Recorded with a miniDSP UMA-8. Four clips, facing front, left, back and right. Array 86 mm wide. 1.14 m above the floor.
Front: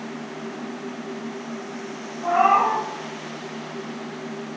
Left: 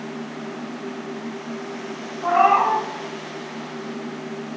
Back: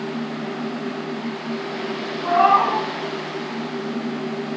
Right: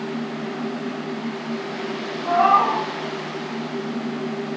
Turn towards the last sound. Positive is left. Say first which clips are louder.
# even, back 2 dB
turn(degrees=90)